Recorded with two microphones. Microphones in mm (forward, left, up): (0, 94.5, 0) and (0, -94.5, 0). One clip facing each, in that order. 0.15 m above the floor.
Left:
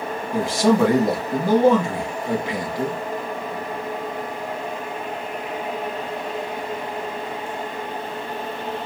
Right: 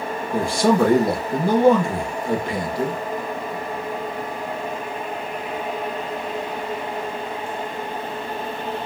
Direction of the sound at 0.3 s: 20° left (ahead or behind).